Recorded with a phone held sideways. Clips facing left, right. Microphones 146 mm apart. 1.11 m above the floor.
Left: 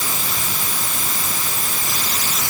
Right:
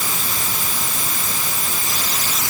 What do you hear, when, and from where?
Only background noise.